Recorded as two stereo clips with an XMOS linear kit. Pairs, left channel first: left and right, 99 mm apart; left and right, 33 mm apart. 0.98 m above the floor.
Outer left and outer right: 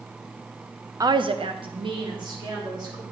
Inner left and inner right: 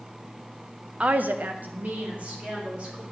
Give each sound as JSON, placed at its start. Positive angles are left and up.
{"t": 1.0, "sound": "a woman speaking", "side_deg": -35, "distance_m": 0.5}